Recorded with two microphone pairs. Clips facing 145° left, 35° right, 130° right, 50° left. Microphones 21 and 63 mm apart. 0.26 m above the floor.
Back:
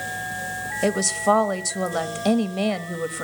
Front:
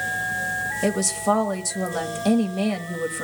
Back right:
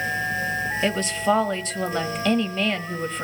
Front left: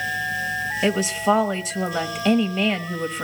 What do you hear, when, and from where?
0.8 s a woman speaking: 130° left, 0.9 m